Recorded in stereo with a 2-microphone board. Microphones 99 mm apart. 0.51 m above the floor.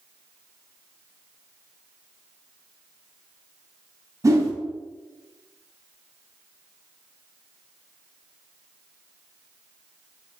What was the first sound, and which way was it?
A whoosh, 30° right (ahead or behind).